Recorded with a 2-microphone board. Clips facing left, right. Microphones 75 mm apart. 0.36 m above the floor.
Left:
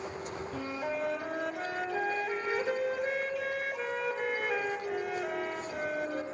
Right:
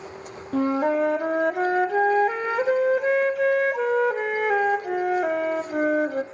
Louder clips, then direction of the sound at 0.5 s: Right 15 dB; 60° right (ahead or behind).